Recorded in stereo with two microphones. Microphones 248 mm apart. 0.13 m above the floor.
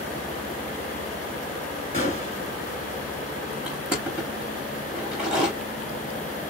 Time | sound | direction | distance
1.9 | a gunshot | 30° left (ahead or behind) | 2 m
3.7 | crushing | 5° right (ahead or behind) | 3 m